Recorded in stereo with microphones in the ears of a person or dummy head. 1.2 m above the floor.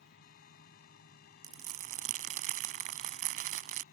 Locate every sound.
0.0 s a fan: 60° left (ahead or behind)
1.4 s crumpling: 50° right (ahead or behind)